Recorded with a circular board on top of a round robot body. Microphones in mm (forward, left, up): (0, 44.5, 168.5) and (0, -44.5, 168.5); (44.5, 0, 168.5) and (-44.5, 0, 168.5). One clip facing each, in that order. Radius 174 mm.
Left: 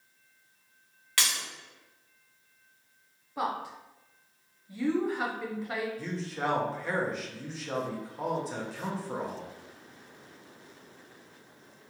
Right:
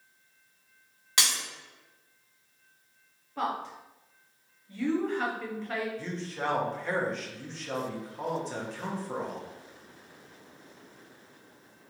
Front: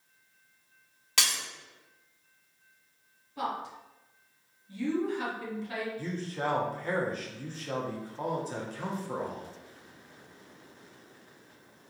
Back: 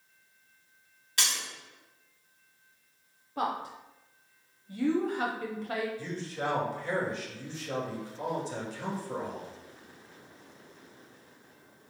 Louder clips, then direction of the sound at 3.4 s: Even, back 2 dB; 170° left.